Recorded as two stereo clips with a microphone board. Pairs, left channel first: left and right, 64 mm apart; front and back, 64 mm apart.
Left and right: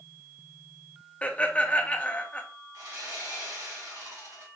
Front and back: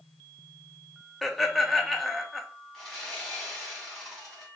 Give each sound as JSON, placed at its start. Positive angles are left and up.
{"t": 1.2, "sound": "laughter", "azimuth_deg": 85, "distance_m": 0.6}
{"t": 2.7, "sound": "sawing", "azimuth_deg": -85, "distance_m": 2.5}